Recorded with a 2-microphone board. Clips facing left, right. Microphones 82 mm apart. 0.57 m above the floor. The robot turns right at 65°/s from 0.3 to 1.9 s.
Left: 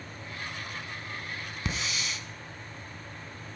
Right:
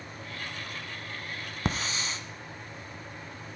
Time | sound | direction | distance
1.6 | a hiss | 50° right (ahead or behind) | 1.0 m